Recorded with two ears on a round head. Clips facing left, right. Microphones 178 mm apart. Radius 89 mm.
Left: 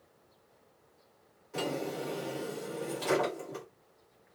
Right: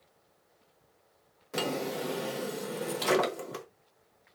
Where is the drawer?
70° right (ahead or behind), 0.8 m.